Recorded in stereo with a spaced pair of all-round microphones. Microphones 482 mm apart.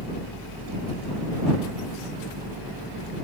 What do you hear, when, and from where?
0.0 s a fan: 50° right (ahead or behind)